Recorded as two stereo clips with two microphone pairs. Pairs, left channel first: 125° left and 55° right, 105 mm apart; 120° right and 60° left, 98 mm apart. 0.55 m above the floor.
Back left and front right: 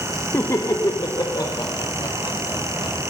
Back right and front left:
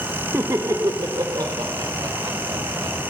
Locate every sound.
0.3 s laughter: 90° left, 0.8 m